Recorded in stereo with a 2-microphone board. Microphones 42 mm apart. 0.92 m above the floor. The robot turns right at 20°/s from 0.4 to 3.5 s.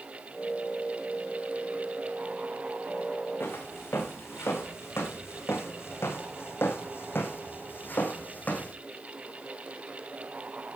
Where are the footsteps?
70° left (ahead or behind), 4.5 m; by 8.7 s 40° left (ahead or behind), 3.5 m.